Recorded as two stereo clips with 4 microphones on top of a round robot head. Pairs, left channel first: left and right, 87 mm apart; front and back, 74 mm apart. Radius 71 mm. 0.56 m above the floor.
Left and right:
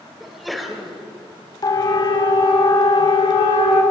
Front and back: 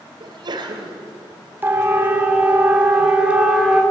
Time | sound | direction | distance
0.2 | a sneeze | straight behind | 3 m
1.6 | a siren | 120° left | 3 m